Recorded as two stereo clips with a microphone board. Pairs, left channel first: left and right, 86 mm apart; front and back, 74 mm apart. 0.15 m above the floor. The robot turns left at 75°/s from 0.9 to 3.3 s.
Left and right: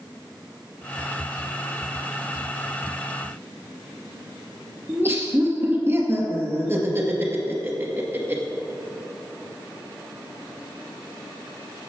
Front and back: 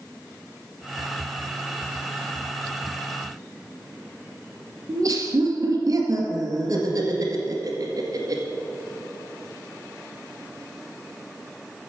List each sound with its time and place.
4.9 s laughter: 150° right, 2.5 m